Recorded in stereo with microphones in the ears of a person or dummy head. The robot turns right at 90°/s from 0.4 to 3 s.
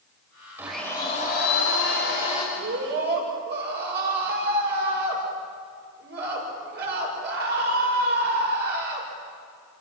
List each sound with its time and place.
0.6 s a blender: 15° right, 5.5 m; by 2.5 s 150° left, 5.5 m
2.5 s a scream: 105° right, 8.5 m; by 9.1 s 65° right, 8.5 m